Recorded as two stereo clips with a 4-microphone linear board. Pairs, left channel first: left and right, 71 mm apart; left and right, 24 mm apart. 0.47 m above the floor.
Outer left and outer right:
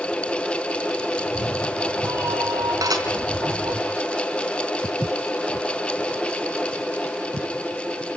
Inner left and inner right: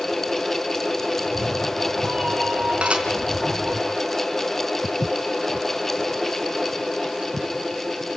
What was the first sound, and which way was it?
A cat meowing, 45° right (ahead or behind).